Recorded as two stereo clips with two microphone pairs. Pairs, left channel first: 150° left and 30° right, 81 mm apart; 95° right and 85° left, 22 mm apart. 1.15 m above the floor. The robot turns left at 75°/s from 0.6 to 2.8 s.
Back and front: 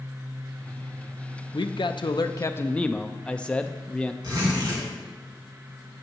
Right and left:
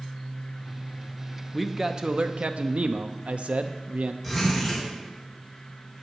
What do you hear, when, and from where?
1.5 s a man speaking: 170° left, 0.6 m; by 4.1 s 75° left, 0.6 m
4.2 s a zipper: 5° right, 3 m